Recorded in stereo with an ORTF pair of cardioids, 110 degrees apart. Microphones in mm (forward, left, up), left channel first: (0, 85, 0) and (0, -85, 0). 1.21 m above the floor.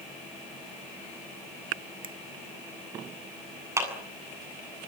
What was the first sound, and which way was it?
A finger snap, 30° right.